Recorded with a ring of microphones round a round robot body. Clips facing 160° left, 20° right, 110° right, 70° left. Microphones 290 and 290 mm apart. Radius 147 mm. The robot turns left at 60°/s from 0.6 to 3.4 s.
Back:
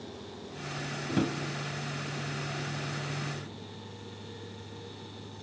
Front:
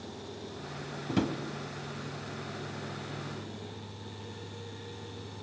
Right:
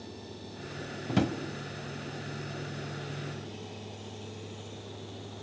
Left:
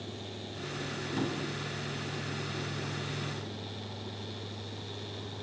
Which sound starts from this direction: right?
A drawer, at 1.1 s.